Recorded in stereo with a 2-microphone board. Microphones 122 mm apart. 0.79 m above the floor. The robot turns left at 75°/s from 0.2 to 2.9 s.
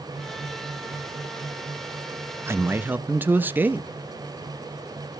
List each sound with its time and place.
2.5 s a man speaking: 20° right (ahead or behind), 0.5 m; by 3.9 s 15° right (ahead or behind), 0.5 m